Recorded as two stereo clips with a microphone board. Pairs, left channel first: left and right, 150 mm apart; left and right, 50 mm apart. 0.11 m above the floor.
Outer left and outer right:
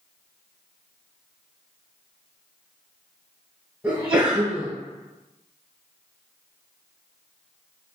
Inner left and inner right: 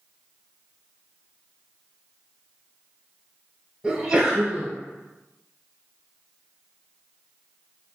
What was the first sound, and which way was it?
A sneeze, 10° right (ahead or behind).